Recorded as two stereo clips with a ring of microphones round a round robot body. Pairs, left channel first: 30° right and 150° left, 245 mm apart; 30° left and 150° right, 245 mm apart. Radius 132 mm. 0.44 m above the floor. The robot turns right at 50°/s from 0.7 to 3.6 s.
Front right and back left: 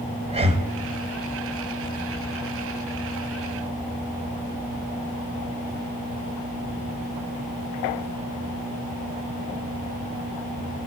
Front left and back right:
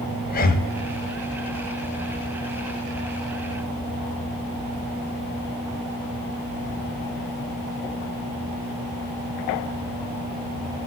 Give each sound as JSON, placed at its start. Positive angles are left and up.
{"t": 0.3, "sound": "breathing", "azimuth_deg": 85, "distance_m": 2.5}